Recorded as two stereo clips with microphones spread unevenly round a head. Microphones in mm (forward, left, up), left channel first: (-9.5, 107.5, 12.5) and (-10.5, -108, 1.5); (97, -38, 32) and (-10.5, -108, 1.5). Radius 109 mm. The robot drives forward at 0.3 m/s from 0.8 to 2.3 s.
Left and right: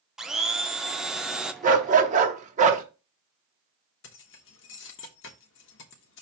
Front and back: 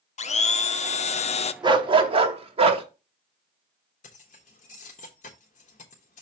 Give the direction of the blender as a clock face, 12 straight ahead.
12 o'clock.